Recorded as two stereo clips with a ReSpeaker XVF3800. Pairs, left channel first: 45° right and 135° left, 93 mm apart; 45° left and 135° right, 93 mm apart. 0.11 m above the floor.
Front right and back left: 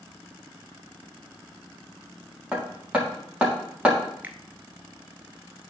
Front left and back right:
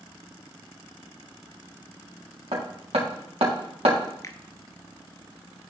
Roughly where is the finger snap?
Left.